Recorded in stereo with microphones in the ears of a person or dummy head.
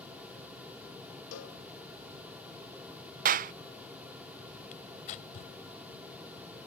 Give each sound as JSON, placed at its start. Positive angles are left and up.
{"t": 1.3, "sound": "a cowbell", "side_deg": 80}
{"t": 3.2, "sound": "a clap", "side_deg": -40}
{"t": 4.7, "sound": "tearing paper", "side_deg": 40}